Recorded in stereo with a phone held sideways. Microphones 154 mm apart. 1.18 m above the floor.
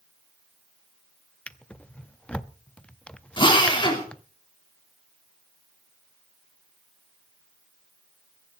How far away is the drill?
About 3 m.